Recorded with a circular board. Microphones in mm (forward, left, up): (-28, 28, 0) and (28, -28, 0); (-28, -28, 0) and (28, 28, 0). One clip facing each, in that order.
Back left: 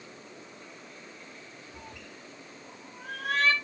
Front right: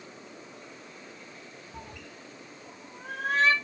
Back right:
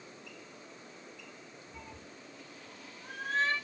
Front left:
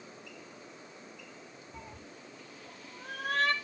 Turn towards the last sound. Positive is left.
turn(degrees=25)